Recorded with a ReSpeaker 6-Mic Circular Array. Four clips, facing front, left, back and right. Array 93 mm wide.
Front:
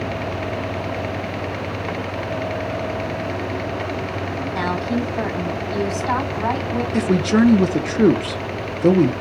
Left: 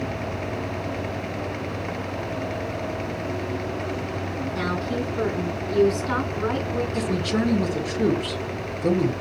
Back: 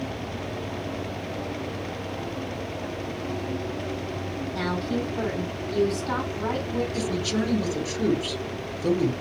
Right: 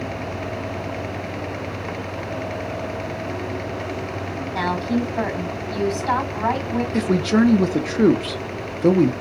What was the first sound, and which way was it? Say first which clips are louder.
A woman speaking: right 6 dB, front 5 dB; 60° right.